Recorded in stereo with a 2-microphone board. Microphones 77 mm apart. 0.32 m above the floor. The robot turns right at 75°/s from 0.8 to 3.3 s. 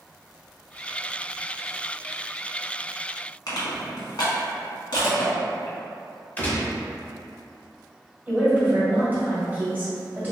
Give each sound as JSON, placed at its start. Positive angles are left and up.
{"t": 3.5, "sound": "crushing", "side_deg": 65, "distance_m": 1.1}
{"t": 6.4, "sound": "a gunshot", "side_deg": 20, "distance_m": 0.7}
{"t": 8.3, "sound": "a woman speaking", "side_deg": -20, "distance_m": 1.7}